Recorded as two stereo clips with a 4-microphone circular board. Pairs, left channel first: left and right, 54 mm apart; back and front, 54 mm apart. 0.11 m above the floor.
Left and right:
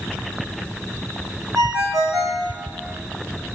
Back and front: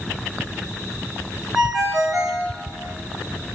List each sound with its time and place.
1.6 s a ringtone: 85° right, 3.5 m